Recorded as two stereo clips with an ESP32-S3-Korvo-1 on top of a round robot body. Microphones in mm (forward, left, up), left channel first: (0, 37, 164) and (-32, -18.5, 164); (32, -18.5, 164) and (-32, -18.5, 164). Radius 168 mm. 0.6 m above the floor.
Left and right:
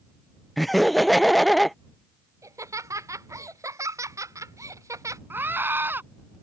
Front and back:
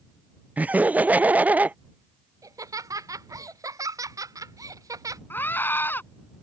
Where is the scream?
60° right.